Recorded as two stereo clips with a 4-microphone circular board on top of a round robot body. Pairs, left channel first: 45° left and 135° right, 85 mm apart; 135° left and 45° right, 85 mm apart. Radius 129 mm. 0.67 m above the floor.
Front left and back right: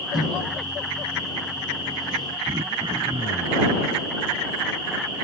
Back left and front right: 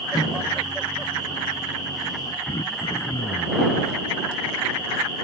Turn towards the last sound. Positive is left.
turn(degrees=180)